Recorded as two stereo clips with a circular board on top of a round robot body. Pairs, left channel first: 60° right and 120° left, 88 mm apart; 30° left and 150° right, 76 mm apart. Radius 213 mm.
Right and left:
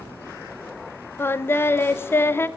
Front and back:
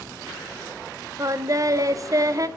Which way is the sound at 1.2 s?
120° right.